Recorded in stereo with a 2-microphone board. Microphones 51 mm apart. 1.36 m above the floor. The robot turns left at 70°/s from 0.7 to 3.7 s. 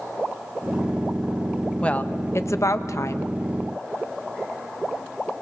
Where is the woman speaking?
160° left, 1.0 m; by 3.3 s 55° left, 1.0 m.